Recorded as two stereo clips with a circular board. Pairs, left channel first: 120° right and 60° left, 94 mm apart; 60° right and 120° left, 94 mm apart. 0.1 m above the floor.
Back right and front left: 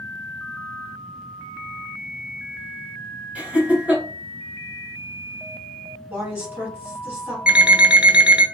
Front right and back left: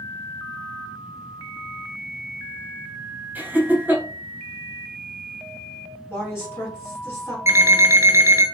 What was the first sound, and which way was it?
Laughter, 105° left.